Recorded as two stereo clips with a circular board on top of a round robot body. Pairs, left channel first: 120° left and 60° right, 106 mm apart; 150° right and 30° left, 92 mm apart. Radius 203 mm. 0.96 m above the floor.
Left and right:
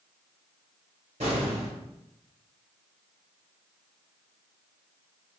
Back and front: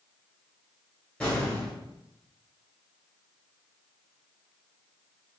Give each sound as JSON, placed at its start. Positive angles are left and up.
{"t": 1.2, "sound": "an explosion", "azimuth_deg": -65, "distance_m": 0.8}